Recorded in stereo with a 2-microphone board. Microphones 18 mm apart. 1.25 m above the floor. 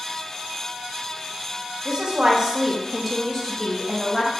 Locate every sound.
1.9 s a woman speaking: 55° right (ahead or behind), 0.9 m; by 4.3 s 50° left (ahead or behind), 1.1 m